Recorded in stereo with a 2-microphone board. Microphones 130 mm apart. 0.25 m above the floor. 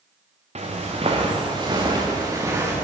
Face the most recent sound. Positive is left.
turn(degrees=-20)  # may be behind; listen again after turning